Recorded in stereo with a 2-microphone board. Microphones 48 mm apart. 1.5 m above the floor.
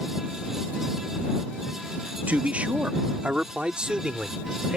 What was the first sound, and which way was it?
A man speaking, 35° right (ahead or behind).